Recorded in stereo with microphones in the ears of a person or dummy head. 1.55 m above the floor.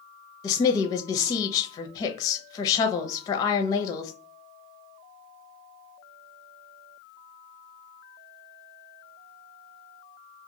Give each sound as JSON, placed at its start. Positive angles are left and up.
{"t": 0.4, "sound": "a woman speaking", "side_deg": 20, "distance_m": 0.6}